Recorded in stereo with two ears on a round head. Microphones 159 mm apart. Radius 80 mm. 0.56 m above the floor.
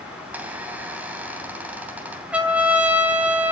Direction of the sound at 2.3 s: 10° right (ahead or behind).